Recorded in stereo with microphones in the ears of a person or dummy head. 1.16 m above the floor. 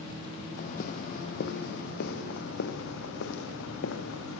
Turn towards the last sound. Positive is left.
turn(degrees=75)  # may be behind; listen again after turning